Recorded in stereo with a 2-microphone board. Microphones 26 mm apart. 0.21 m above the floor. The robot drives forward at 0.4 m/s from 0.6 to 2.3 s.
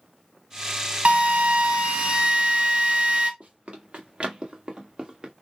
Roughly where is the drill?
Right.